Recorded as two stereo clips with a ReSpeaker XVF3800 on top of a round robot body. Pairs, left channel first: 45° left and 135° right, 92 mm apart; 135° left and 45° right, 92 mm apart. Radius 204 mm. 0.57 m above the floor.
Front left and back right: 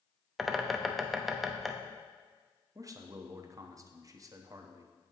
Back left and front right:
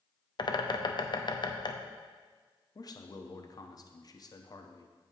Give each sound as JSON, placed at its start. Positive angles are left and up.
{"t": 0.4, "sound": "a bird", "azimuth_deg": 135, "distance_m": 1.0}
{"t": 2.8, "sound": "a man speaking", "azimuth_deg": 175, "distance_m": 1.1}